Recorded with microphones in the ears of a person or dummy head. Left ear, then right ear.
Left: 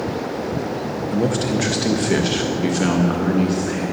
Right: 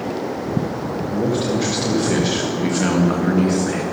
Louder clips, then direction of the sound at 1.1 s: Even; 50° left (ahead or behind).